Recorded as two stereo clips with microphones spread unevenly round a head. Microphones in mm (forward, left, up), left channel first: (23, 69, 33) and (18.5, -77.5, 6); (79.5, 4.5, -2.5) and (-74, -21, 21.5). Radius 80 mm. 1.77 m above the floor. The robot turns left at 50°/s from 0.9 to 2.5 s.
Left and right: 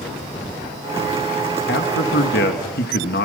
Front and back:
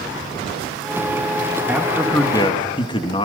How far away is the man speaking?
About 2.5 m.